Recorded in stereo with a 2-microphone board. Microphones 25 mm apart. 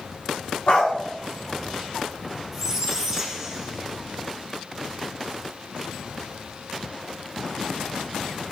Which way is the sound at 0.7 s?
60° left (ahead or behind).